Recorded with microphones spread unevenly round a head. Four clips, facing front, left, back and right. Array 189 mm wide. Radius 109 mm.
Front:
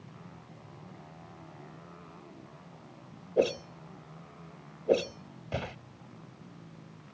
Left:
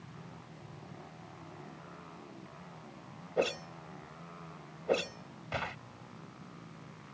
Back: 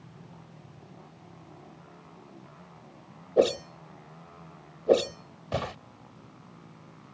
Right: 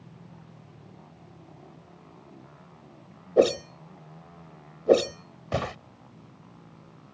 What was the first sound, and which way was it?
A whoosh, 100° right.